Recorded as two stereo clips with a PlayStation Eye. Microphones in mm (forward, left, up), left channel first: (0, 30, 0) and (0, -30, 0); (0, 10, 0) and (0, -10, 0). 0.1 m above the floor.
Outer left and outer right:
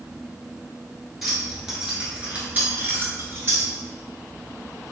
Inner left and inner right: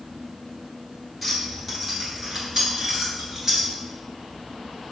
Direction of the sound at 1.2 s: Centre (ahead or behind).